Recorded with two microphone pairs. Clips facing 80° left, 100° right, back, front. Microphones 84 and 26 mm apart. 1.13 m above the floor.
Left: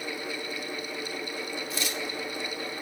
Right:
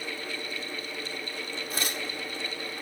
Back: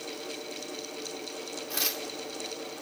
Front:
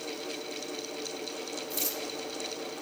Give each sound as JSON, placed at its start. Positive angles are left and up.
{"t": 1.7, "sound": "tearing paper", "azimuth_deg": -145, "distance_m": 1.9}